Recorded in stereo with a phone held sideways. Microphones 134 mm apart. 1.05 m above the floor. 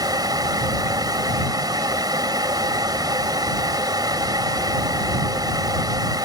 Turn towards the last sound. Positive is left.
turn(degrees=-30)  # may be behind; listen again after turning